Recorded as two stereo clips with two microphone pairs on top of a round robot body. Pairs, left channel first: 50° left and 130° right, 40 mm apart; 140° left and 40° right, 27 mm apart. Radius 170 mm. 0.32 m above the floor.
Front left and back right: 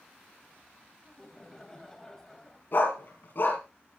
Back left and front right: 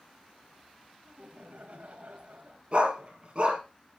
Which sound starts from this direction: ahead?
A dog barking, at 2.7 s.